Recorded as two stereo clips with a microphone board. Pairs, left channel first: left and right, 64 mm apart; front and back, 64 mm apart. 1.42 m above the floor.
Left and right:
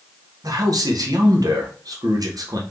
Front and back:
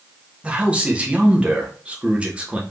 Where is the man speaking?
110° right, 1.0 m.